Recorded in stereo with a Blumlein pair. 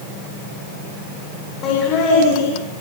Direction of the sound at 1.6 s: 35° left.